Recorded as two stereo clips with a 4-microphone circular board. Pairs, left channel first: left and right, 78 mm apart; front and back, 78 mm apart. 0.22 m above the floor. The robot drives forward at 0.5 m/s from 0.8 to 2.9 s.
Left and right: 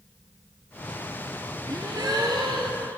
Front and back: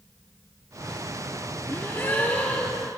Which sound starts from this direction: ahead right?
A gasp, at 1.7 s.